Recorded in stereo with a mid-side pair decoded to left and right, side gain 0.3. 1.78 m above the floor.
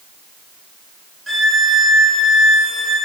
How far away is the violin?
About 1.1 m.